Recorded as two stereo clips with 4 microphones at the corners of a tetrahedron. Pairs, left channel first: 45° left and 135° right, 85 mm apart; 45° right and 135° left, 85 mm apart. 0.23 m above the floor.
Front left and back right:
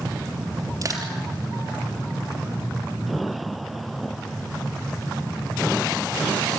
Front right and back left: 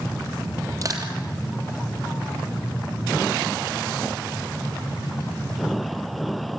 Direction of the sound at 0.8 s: 175° right.